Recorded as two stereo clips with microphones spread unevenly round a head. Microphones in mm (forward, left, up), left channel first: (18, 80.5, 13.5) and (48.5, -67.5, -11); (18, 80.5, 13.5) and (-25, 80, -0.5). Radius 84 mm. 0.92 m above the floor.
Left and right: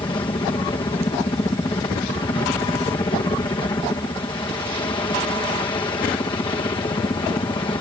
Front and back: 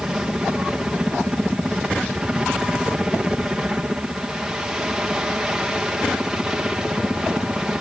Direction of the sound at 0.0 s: 140° left.